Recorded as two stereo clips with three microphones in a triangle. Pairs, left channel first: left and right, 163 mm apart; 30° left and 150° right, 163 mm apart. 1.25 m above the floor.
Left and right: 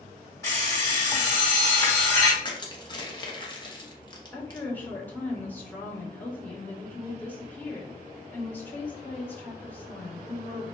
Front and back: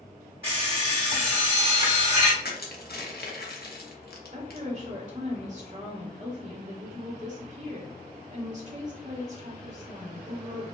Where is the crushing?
30° left, 0.7 m.